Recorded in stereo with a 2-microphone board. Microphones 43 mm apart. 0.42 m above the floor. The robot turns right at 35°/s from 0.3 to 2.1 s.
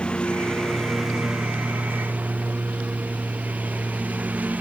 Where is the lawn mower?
25° left (ahead or behind); by 4.6 s 40° right (ahead or behind).